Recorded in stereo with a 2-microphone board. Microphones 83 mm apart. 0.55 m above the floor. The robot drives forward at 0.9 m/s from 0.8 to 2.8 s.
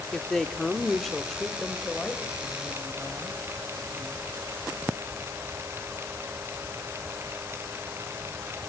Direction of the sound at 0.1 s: 5° left (ahead or behind).